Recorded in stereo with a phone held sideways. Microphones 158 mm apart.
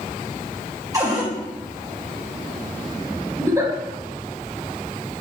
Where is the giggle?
20° right (ahead or behind), 2.5 m.